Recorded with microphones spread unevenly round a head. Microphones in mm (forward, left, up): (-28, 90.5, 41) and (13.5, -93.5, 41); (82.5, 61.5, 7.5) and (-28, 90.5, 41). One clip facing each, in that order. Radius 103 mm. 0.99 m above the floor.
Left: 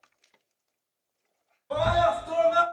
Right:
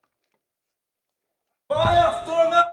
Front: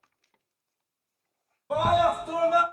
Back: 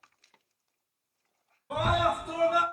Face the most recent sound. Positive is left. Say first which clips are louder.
# right 5 dB, front 5 dB
turn(degrees=-65)